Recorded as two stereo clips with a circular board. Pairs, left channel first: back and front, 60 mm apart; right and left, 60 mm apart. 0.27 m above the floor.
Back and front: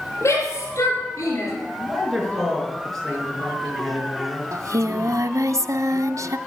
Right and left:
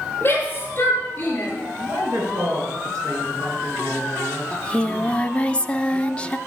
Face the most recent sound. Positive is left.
turn(degrees=-20)